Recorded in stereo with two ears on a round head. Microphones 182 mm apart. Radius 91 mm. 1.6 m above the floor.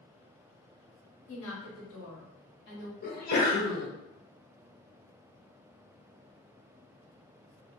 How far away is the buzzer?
No buzzer in this recording.